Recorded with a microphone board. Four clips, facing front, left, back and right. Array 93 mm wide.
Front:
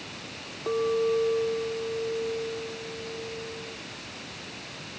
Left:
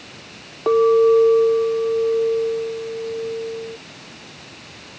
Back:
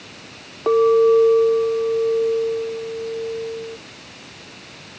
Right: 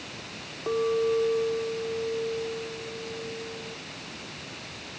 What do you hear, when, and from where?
0.7 s a clink: 135° left